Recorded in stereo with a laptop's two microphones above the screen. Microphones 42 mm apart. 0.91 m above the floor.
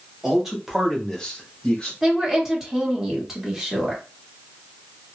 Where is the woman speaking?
10° right (ahead or behind), 1.5 m.